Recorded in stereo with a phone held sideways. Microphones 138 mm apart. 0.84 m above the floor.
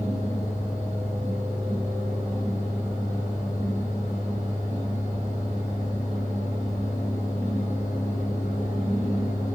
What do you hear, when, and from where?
0.0 s a fan: 60° left (ahead or behind), 1.5 m